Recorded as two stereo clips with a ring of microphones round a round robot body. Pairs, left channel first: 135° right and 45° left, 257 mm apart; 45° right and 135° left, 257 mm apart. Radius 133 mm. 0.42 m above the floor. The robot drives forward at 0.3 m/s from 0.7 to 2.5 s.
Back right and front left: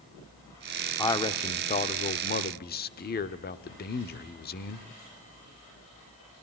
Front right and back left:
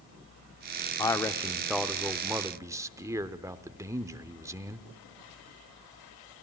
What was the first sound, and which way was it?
A man speaking, 90° right.